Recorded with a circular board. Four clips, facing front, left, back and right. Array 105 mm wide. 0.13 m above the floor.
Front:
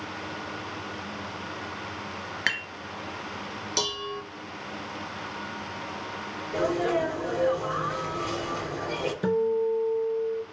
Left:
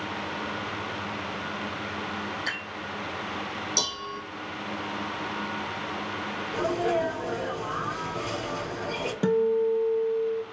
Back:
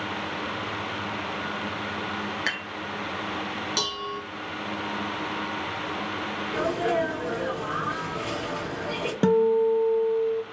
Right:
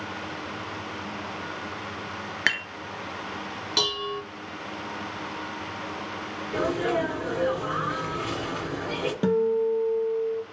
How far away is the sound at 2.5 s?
About 1.4 m.